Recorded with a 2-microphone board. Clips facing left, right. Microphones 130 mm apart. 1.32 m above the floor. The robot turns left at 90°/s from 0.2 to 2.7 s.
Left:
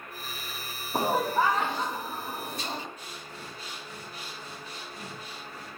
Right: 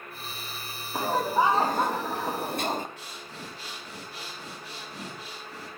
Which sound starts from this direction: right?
Breathing, at 3.0 s.